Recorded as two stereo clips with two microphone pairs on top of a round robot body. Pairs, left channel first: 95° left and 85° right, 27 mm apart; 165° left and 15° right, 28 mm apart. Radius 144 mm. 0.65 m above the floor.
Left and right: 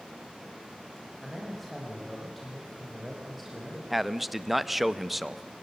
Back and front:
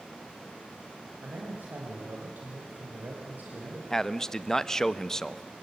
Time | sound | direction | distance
1.2 | a man speaking | 5° left | 4.5 m
3.9 | a man speaking | 150° right | 1.3 m